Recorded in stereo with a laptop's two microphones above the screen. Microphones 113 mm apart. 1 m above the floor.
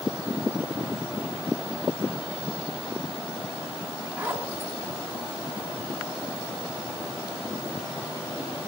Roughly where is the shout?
I don't hear a shout.